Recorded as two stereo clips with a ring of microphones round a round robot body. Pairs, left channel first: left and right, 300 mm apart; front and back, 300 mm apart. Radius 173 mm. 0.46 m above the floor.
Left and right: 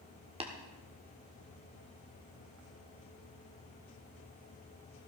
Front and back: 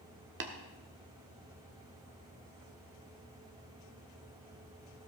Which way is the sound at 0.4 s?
155° right.